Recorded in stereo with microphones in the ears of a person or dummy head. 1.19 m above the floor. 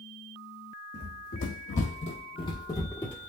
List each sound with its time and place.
0.9 s running footsteps: 55° left (ahead or behind), 2 m; by 3.3 s 5° left (ahead or behind), 1.3 m